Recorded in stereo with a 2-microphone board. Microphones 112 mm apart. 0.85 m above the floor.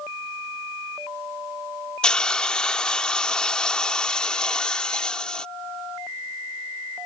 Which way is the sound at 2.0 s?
5° left (ahead or behind).